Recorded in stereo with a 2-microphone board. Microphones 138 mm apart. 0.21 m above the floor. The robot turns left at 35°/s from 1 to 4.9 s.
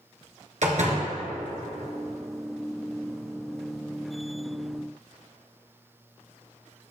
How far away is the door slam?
About 2.0 m.